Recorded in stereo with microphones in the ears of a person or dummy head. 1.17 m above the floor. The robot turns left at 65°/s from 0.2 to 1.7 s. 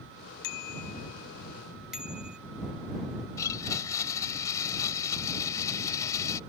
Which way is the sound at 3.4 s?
20° left (ahead or behind).